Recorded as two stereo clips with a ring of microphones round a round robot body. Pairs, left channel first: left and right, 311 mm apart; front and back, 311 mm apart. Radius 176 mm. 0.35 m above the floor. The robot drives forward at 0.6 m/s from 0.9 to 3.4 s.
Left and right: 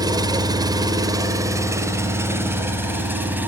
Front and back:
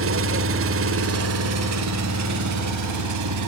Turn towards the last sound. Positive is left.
turn(degrees=-175)